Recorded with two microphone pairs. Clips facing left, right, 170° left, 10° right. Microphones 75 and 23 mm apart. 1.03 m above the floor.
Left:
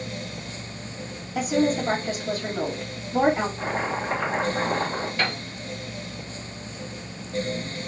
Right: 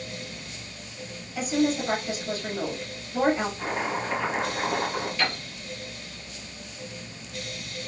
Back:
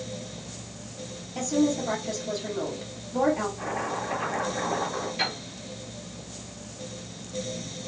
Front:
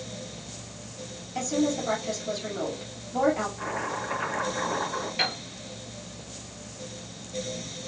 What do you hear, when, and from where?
1.4 s a woman speaking: 50° left, 2.5 m
3.6 s chopping: 65° left, 3 m
5.2 s a piano: 55° left, 3 m